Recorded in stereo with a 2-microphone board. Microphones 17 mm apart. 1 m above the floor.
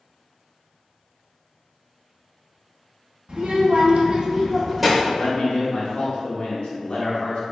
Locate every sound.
3.3 s a child speaking: 70° right (ahead or behind), 1.0 m; by 4.9 s centre (ahead or behind), 0.8 m
5.0 s a man speaking: 75° left (ahead or behind), 1.3 m